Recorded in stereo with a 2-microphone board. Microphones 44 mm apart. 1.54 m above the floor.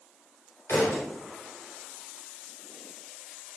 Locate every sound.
0.7 s a thud: 75° left (ahead or behind), 3 m